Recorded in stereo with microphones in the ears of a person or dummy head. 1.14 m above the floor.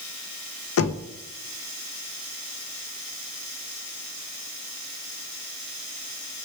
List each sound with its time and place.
0.8 s knocking: 60° left (ahead or behind), 0.5 m